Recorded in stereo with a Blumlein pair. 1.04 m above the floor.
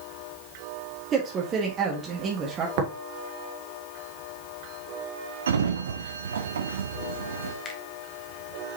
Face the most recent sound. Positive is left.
turn(degrees=25)